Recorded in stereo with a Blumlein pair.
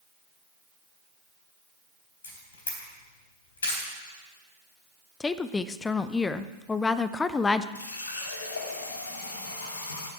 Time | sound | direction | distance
2.2 | a camera shutter | 70° left | 4 m
5.2 | a woman speaking | 15° left | 0.6 m
7.8 | a running tap | 70° left | 2 m